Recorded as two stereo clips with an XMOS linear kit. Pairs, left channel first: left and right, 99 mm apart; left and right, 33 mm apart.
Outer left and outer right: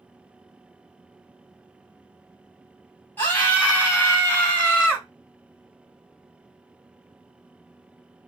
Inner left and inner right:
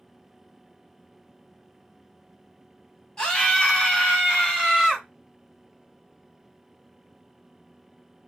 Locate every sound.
3.2 s a scream: 20° left (ahead or behind), 1.8 m; by 5.1 s 15° left (ahead or behind), 1.7 m